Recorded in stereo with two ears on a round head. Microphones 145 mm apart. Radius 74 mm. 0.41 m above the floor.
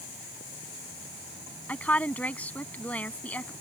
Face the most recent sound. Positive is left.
turn(degrees=10)  # may be behind; listen again after turning